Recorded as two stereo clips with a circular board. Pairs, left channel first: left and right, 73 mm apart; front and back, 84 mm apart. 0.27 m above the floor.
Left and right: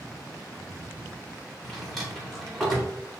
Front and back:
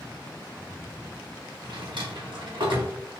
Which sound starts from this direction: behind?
A drawer, at 1.6 s.